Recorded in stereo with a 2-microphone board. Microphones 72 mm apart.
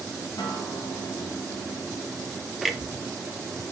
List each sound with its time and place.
0.4 s a guitar: 70° left (ahead or behind), 3 m
2.6 s a clunk: centre (ahead or behind), 0.9 m